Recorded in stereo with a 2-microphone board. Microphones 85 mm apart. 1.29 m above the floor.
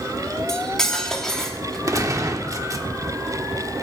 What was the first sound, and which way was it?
Cutlery clinking, 5° left (ahead or behind).